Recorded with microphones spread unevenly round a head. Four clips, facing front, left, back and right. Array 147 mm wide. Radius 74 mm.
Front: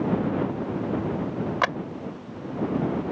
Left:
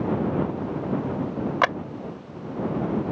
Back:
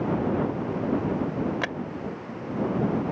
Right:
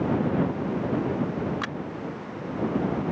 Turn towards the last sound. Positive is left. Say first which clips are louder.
# left 11 dB, front 6 dB
turn(degrees=75)